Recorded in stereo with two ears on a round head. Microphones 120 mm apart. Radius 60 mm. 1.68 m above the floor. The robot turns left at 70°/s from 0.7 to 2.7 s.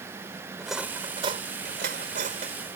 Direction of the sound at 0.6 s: Centre (ahead or behind).